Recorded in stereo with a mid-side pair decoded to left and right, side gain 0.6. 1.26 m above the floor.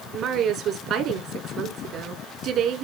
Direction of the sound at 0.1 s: 55° right.